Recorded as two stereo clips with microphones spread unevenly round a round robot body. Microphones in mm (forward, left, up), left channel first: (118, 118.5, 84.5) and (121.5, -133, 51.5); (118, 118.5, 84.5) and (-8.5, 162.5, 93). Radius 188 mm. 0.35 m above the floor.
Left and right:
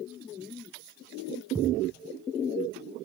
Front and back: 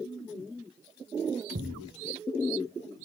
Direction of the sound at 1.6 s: 170° right.